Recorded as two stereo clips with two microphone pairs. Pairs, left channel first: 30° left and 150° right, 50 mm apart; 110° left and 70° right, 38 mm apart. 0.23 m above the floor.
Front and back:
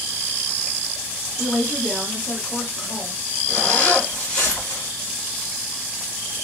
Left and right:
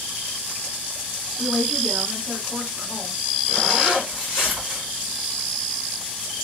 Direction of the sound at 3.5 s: 5° right.